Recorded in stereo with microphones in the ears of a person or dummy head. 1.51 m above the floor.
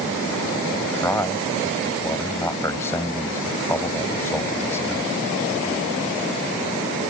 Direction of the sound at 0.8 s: 15° left (ahead or behind).